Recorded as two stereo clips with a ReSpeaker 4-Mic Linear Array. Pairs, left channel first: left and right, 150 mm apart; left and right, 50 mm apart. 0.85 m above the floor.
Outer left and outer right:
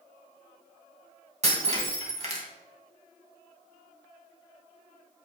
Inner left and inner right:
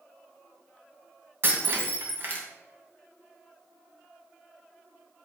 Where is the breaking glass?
50° right (ahead or behind), 2.5 m.